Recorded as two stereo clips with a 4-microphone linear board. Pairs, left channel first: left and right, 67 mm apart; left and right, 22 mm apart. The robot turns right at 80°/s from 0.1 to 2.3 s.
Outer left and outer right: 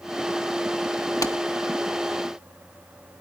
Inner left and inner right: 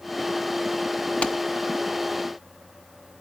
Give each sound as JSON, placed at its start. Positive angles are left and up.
{"t": 1.2, "sound": "a clap", "side_deg": 60, "distance_m": 0.9}